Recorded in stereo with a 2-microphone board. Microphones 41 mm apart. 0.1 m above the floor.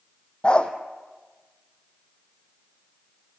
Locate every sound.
0.4 s a dog barking: 25° left (ahead or behind), 1.7 m